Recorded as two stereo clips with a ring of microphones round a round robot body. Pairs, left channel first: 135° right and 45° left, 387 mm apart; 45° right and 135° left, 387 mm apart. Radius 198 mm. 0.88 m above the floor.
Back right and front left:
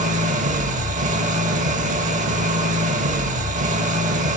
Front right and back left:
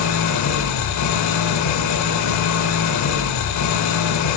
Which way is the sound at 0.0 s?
20° right.